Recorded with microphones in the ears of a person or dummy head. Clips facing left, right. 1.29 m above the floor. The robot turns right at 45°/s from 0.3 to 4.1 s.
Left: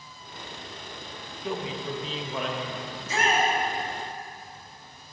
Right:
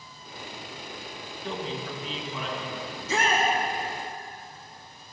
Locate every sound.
1.4 s a man speaking: 5° left, 1.7 m; by 2.8 s 65° left, 1.7 m
2.9 s a shout: 55° right (ahead or behind), 2 m; by 3.5 s 80° right, 2 m